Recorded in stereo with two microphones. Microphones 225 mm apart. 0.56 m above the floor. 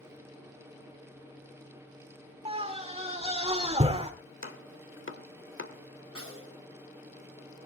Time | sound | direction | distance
2.5 | a scream | 30° right (ahead or behind) | 1.4 m
4.4 | chopping | 65° left (ahead or behind) | 1.5 m
6.2 | a snare drum | 80° right | 5.5 m